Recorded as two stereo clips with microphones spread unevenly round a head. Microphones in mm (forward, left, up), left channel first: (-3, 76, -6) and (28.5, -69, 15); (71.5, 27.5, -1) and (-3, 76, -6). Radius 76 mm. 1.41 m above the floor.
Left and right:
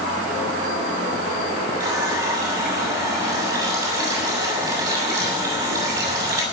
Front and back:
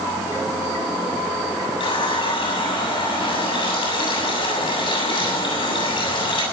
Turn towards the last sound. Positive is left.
turn(degrees=-15)